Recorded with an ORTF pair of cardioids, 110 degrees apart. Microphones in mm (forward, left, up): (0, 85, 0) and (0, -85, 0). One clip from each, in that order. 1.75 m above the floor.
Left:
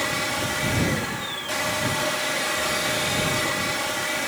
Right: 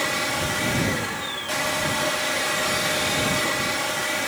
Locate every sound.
0.0 s a machine running: 10° right